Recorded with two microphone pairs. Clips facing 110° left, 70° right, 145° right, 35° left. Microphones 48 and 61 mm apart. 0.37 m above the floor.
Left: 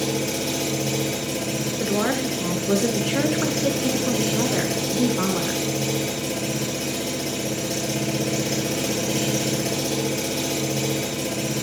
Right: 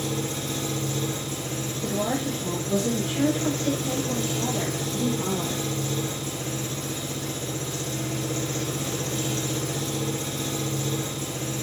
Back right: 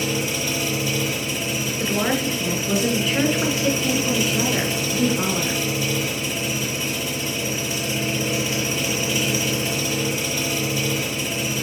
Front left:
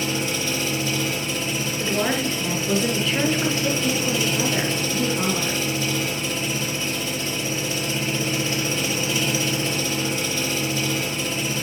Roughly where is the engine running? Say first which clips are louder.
Left 5 dB, back right 1 dB; behind left.